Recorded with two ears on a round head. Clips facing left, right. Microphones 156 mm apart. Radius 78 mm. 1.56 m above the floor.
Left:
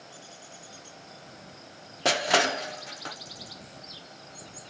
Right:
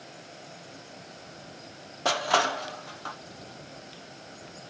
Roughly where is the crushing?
Left.